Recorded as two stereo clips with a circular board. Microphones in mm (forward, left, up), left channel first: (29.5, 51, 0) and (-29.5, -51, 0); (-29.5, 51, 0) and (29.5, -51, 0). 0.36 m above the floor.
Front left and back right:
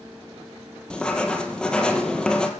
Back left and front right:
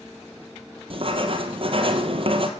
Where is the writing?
25° right, 1.7 m.